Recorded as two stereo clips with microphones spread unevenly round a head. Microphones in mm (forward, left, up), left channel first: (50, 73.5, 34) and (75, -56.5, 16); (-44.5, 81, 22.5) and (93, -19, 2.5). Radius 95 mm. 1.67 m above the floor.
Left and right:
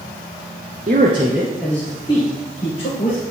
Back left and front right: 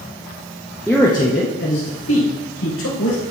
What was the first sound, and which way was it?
A man speaking, 125° right.